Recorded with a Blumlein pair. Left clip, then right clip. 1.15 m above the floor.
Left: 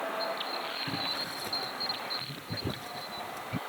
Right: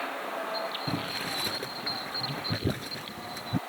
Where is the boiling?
15° right.